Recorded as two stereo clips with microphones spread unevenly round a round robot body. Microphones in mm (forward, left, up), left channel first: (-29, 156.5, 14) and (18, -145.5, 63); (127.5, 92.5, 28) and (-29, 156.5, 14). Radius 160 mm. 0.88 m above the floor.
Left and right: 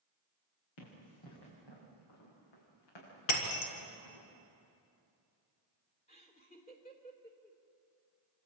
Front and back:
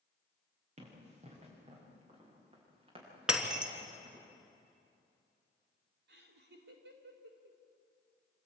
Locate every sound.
0.8 s running footsteps: 110° left, 9 m; by 4.3 s 100° left, 10.5 m
3.3 s breaking glass: 70° left, 3 m
6.1 s laughter: 170° left, 3.5 m